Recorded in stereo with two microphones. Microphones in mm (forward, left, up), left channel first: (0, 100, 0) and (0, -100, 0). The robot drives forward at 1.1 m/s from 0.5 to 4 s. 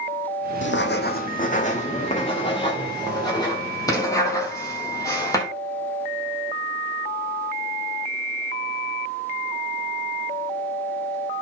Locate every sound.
0.6 s writing: 70° left (ahead or behind), 1.2 m; by 5.5 s 15° left (ahead or behind), 4.5 m